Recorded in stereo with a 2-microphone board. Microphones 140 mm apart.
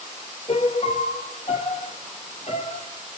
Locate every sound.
0.5 s a piano: 50° left (ahead or behind), 1.5 m